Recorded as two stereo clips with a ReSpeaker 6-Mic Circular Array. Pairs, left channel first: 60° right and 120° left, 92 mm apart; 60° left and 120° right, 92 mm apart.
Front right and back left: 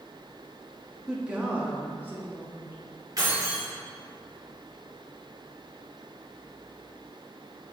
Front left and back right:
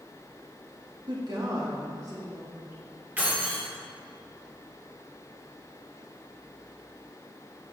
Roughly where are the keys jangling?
Behind.